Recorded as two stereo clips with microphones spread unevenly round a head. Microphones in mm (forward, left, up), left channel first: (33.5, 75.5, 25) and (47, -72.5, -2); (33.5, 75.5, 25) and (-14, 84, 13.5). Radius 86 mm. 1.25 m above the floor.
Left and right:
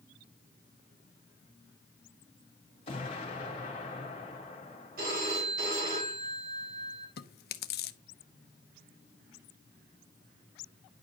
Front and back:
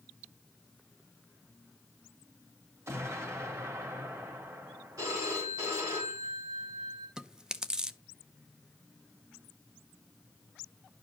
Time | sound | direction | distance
2.9 | an explosion | 155° left | 2 m
5.0 | a phone ringing | 130° right | 3 m
7.2 | chewing | 90° left | 0.7 m